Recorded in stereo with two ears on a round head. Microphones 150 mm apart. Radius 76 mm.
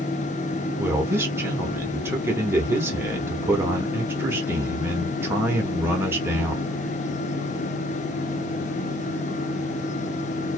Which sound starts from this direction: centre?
A man speaking, at 0.8 s.